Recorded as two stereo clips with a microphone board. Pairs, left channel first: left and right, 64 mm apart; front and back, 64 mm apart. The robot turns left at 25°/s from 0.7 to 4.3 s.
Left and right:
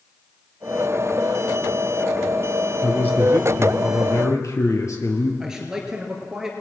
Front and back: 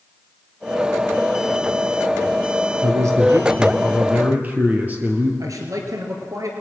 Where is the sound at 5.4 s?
170° right, 2.5 m.